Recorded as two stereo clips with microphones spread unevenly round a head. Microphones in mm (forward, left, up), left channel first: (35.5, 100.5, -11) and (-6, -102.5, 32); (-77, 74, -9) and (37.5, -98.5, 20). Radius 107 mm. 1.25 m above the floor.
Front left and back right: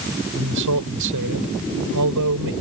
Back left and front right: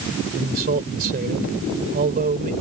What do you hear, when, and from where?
0.3 s a man speaking: 105° right